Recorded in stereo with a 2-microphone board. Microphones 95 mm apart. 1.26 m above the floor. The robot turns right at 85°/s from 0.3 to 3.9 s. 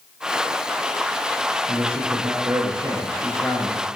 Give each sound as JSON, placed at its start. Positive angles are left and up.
{"t": 1.7, "sound": "a man speaking", "azimuth_deg": -130, "distance_m": 0.6}